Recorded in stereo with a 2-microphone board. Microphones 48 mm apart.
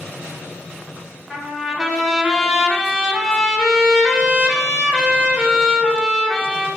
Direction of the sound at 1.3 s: Centre (ahead or behind).